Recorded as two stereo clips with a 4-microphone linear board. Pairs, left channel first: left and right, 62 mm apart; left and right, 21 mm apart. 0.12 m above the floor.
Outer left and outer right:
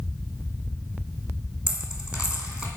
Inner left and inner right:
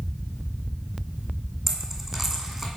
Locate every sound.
1.7 s a dropped coin: 20° right (ahead or behind), 1.8 m